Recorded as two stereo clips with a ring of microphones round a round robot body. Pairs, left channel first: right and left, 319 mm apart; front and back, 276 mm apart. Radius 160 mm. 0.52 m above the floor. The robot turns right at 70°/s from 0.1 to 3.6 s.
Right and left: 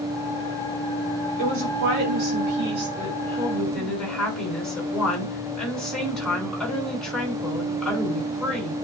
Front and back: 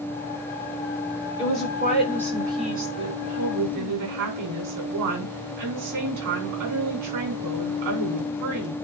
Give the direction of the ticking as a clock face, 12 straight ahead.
No ticking in this recording.